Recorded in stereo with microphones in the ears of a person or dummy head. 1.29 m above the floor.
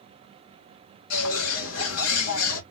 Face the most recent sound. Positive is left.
turn(degrees=75)  # may be behind; listen again after turning